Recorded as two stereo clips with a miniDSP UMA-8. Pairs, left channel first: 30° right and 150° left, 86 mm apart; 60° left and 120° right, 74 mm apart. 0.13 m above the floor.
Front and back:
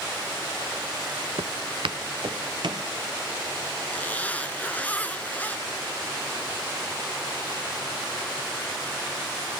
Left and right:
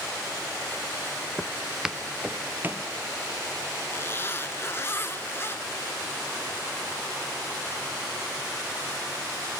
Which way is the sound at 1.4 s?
140° left.